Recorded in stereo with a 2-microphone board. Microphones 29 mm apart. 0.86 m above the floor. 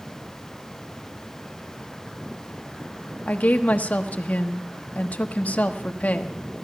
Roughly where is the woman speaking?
Left.